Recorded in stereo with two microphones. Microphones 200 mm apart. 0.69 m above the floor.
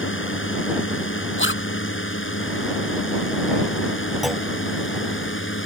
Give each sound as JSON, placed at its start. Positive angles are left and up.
{"t": 0.0, "sound": "a drone", "side_deg": 80}
{"t": 1.4, "sound": "a zipper", "side_deg": 75}
{"t": 4.2, "sound": "a clunk", "side_deg": 0}